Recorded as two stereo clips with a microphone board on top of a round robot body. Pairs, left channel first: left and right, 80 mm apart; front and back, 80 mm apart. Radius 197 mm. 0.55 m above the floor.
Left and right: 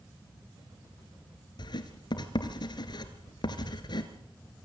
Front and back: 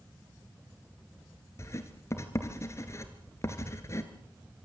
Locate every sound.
1.6 s writing: 55° left, 1.9 m